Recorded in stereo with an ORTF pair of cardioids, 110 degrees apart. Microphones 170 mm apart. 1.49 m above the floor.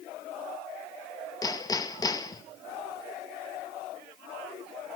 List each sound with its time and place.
1.4 s hammering: 20° left, 1.8 m